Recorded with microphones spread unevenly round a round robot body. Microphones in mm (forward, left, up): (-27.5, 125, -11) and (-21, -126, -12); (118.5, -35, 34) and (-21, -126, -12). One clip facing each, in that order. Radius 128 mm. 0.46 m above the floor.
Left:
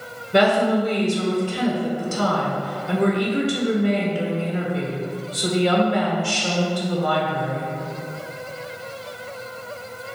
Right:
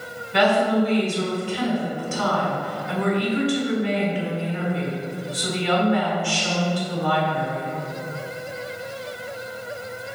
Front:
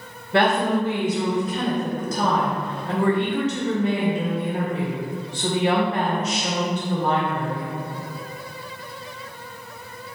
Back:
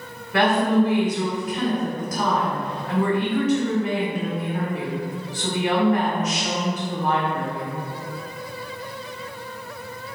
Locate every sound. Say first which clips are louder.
0.3 s a woman speaking: left 1 dB, back 1 dB; 105° left, 1.7 m